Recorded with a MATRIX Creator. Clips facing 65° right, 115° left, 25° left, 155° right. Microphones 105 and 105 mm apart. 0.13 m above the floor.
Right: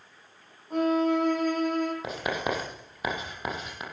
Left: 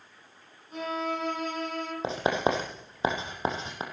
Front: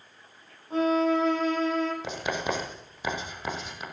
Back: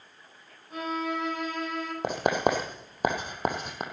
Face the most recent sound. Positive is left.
turn(degrees=170)